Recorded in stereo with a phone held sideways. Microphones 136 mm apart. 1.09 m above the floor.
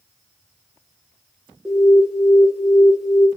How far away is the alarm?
About 0.9 m.